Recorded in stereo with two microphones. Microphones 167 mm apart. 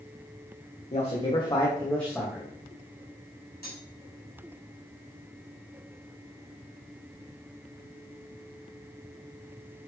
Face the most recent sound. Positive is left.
turn(degrees=65)  # may be behind; listen again after turning